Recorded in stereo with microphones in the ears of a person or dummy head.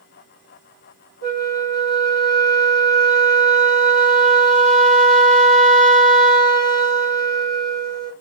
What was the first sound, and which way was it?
A flute, 75° left (ahead or behind).